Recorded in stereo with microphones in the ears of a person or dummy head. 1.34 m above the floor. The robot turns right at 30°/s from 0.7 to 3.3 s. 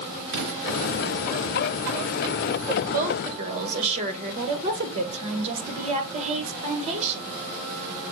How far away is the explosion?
About 3.5 m.